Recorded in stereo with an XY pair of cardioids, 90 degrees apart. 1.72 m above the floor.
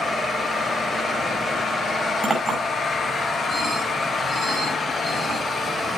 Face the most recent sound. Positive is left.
turn(degrees=-30)